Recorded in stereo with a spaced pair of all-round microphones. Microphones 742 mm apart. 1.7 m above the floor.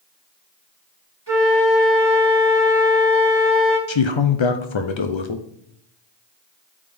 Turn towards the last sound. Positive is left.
turn(degrees=40)  # may be behind; listen again after turning